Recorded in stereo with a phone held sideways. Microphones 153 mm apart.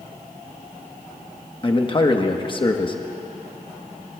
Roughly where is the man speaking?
Left.